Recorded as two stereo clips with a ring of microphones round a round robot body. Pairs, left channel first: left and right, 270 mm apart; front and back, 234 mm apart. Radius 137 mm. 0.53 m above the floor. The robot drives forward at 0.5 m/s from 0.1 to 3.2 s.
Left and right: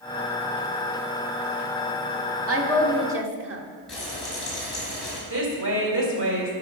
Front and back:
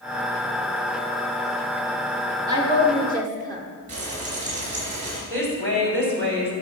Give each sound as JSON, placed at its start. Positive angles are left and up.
{"t": 2.5, "sound": "a woman speaking", "azimuth_deg": -110, "distance_m": 1.2}
{"t": 3.9, "sound": "frying", "azimuth_deg": 180, "distance_m": 4.0}
{"t": 5.3, "sound": "a woman speaking", "azimuth_deg": -135, "distance_m": 3.0}